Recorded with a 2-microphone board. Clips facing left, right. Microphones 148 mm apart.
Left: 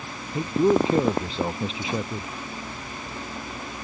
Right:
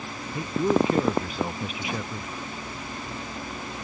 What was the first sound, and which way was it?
A man speaking, 25° left (ahead or behind).